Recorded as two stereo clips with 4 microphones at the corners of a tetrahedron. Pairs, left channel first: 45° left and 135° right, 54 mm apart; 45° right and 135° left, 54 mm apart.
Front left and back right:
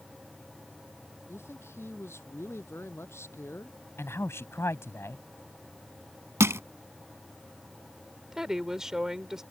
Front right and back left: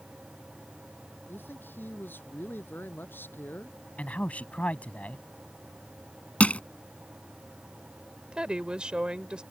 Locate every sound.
1.3 s a man speaking: 5° left
4.0 s a man speaking: 15° left
6.4 s crushing: 105° right
8.3 s a woman speaking: 160° left